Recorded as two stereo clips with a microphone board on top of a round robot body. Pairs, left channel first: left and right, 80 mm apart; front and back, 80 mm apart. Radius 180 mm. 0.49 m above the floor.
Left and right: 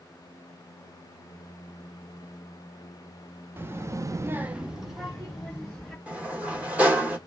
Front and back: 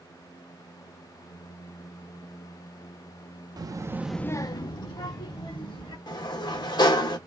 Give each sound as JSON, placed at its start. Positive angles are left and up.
{"t": 3.6, "sound": "a child speaking", "azimuth_deg": -150, "distance_m": 0.8}
{"t": 6.1, "sound": "a sliding door", "azimuth_deg": -20, "distance_m": 1.3}